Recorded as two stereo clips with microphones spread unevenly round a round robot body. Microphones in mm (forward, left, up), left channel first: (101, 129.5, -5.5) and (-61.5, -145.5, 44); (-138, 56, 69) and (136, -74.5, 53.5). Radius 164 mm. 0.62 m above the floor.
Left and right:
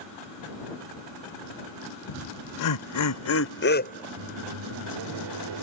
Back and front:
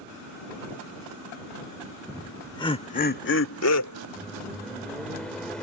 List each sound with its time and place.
2.1 s laughter: 65° left; by 4.1 s 130° left
4.2 s a microwave: 120° right